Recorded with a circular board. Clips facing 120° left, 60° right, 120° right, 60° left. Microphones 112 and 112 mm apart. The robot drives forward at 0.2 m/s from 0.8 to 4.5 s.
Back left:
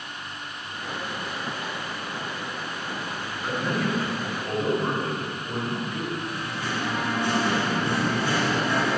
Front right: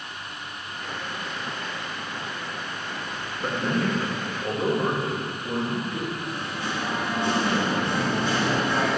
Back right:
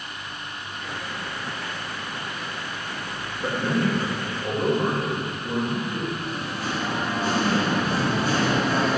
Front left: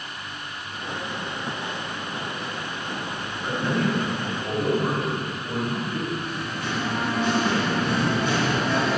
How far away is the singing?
About 1.0 m.